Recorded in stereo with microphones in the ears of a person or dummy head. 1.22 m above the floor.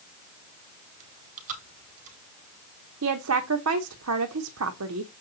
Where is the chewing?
40° right (ahead or behind), 4 m.